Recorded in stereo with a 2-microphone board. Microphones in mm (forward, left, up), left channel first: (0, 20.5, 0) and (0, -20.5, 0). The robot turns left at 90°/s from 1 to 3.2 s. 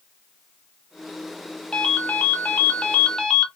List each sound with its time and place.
1.7 s a ringtone: 150° left, 0.6 m; by 3.5 s 20° left, 0.6 m